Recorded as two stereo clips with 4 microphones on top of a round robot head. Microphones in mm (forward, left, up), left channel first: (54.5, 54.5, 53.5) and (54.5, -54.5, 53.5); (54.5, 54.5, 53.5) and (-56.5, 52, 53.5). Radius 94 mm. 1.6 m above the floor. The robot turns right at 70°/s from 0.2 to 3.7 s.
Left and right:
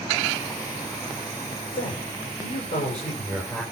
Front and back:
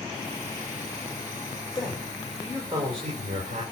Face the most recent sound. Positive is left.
turn(degrees=-170)